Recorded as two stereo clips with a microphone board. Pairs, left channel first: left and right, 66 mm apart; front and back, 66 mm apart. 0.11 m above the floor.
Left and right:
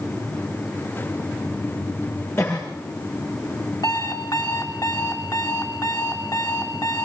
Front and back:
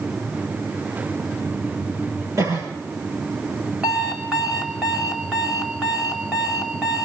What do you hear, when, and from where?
2.4 s a cough: 145° left, 9 m
3.8 s an alarm clock: 100° left, 5 m